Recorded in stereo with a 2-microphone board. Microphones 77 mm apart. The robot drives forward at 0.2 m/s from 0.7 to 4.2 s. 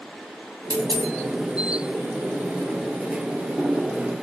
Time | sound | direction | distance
0.7 | a dropped coin | 70° right (ahead or behind) | 1.7 m